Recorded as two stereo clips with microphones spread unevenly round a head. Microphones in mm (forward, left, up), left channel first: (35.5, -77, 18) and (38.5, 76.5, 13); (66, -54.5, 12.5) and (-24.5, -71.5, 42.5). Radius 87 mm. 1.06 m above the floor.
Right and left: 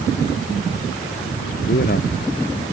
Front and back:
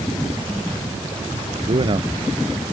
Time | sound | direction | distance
1.6 | a man speaking | 135° right | ?